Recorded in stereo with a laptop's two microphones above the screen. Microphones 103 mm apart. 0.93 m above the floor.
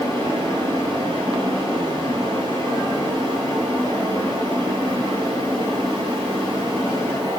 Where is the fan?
50° right (ahead or behind), 5 m.